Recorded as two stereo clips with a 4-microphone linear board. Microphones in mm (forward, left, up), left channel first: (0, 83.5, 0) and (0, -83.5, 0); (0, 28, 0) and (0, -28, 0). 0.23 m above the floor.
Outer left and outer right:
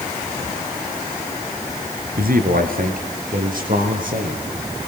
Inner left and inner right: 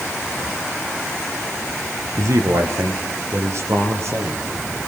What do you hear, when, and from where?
2.2 s a man speaking: 60° right (ahead or behind), 3 m; by 4.5 s 55° right (ahead or behind), 5.5 m